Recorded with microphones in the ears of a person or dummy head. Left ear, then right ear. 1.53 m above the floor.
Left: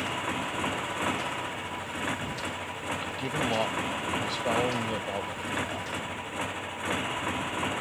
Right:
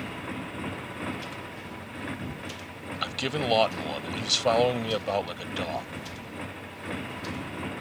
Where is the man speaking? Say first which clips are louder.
Right 5 dB; 45° right (ahead or behind).